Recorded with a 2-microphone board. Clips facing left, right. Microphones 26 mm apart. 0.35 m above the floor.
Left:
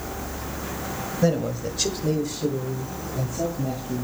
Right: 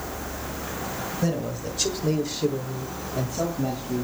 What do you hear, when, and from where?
1.2 s a man speaking: 25° left (ahead or behind), 1.6 m; by 4.0 s 40° right (ahead or behind), 2.5 m